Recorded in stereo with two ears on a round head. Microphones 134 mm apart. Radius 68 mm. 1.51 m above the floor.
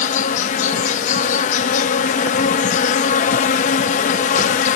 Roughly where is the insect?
Left.